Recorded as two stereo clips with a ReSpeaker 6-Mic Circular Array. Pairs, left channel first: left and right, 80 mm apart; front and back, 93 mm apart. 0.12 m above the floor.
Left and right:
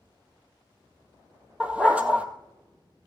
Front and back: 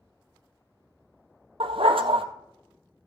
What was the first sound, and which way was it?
A dog barking, 165° right.